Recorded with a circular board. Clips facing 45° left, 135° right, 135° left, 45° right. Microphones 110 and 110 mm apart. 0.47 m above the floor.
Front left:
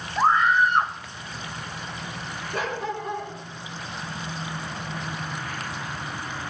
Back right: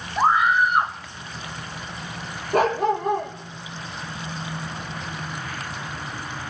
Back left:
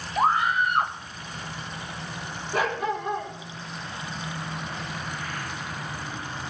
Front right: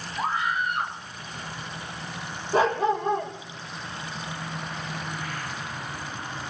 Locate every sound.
0.2 s a scream: 145° left, 1.6 m
2.5 s a dog barking: 105° right, 5 m